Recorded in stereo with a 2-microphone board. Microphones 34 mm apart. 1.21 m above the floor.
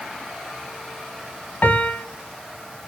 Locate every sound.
1.6 s a piano: 65° left (ahead or behind), 1.3 m